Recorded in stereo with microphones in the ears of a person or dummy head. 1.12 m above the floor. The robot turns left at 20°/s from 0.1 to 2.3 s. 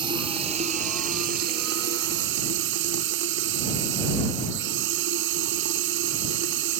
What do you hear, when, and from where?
0.0 s running water: 30° right; by 6.8 s 75° right